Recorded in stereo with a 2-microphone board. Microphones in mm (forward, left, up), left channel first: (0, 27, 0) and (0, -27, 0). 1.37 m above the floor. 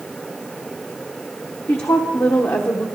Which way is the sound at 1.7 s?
60° left (ahead or behind).